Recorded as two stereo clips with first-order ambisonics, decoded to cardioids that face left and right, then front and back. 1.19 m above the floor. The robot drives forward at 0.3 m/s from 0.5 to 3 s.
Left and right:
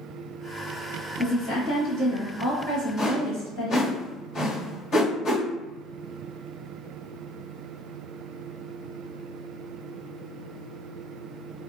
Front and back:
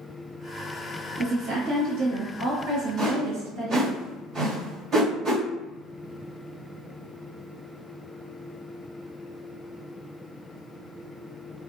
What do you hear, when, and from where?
1.2 s a woman speaking: 150° left, 1.4 m; by 4.0 s 160° left, 1.9 m
3.0 s a whoosh: 130° left, 1.6 m